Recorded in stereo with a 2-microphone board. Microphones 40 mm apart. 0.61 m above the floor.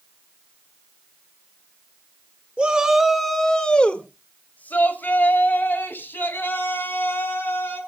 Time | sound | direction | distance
2.6 | a shout | 25° right (ahead or behind) | 1.8 m